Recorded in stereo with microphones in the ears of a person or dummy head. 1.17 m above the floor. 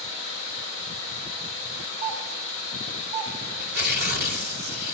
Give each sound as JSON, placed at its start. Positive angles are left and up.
{"t": 0.0, "sound": "running water", "side_deg": -60, "distance_m": 10.0}
{"t": 2.0, "sound": "a doorbell", "side_deg": -65, "distance_m": 8.5}
{"t": 3.6, "sound": "tearing paper", "side_deg": -55, "distance_m": 2.5}